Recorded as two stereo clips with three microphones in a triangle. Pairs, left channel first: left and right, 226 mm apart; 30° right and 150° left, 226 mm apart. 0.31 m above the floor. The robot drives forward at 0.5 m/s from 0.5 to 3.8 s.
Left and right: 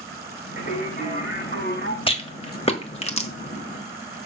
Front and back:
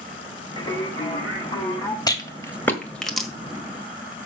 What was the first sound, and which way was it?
Singing, 40° left.